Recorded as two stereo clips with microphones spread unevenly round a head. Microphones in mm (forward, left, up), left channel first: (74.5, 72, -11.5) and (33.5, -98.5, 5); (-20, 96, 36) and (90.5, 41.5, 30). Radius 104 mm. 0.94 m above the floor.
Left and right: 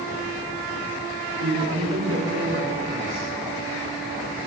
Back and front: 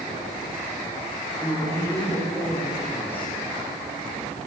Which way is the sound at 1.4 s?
130° right.